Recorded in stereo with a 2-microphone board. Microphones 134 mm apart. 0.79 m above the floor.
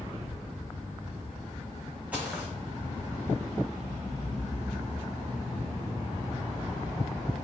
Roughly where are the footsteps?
Centre.